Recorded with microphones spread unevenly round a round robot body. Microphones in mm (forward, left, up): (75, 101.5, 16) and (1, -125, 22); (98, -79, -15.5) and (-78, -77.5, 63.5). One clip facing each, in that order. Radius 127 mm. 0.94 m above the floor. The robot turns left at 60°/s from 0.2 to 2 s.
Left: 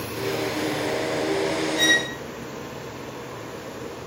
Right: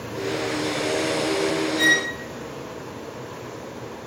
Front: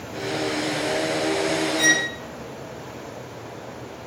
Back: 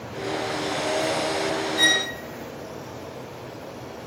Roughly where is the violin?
Behind left.